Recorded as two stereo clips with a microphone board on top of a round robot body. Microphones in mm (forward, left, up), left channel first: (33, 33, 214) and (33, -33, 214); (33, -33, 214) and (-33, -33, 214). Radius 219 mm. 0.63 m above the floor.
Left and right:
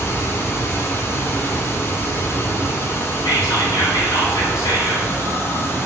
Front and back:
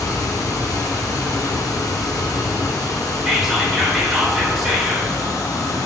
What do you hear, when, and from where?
0.0 s running water: 35° left, 0.8 m
3.2 s whispering: 95° left, 3 m